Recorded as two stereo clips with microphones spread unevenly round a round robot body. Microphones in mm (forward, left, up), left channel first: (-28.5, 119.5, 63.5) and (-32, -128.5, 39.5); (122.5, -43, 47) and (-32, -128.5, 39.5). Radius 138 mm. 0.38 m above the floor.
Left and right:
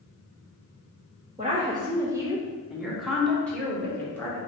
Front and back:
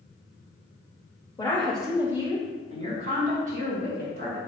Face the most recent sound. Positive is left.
turn(degrees=175)